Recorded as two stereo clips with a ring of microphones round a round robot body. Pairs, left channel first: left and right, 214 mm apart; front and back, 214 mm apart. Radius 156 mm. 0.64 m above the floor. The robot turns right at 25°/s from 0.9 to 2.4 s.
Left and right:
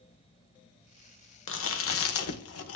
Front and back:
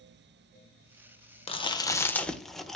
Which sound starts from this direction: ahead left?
Chewing, at 1.5 s.